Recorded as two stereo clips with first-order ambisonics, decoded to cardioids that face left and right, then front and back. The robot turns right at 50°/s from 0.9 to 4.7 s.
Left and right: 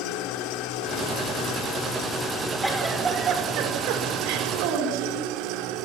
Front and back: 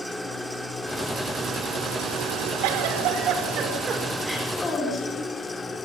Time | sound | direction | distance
0.0 | an engine running | 90° left | 2.5 m
2.6 | a giggle | straight behind | 5.5 m